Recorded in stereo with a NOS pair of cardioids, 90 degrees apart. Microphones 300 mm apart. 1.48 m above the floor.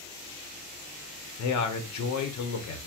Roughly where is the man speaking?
Left.